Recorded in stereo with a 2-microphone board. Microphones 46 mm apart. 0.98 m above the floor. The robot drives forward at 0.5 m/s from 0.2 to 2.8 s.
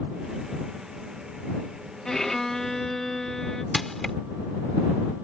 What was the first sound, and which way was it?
A violin, 10° left (ahead or behind).